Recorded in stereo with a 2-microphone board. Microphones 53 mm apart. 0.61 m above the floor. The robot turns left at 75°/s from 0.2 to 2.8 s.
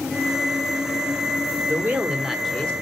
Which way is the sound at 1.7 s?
130° right.